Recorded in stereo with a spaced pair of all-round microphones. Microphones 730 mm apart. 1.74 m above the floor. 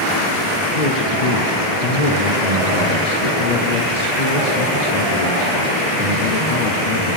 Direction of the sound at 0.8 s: 65° left (ahead or behind).